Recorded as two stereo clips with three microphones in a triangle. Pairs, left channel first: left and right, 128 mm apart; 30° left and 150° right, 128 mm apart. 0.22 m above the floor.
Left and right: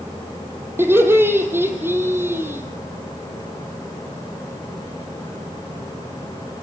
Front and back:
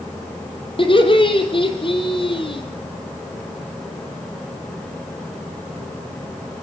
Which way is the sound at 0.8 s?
20° right.